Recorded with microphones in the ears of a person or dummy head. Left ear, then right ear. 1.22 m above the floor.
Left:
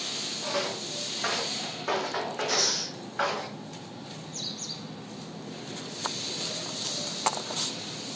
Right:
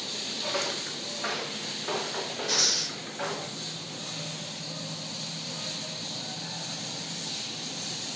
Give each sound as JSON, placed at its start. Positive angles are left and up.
{"t": 0.4, "sound": "footsteps", "side_deg": -10, "distance_m": 3.0}
{"t": 2.5, "sound": "breathing", "side_deg": -10, "distance_m": 0.6}